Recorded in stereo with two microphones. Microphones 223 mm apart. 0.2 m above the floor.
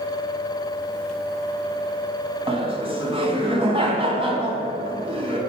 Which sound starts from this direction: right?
Laughter, at 2.5 s.